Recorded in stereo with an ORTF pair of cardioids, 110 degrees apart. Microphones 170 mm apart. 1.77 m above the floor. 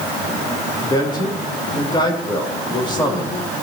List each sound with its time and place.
0.8 s a man speaking: 25° left, 3.5 m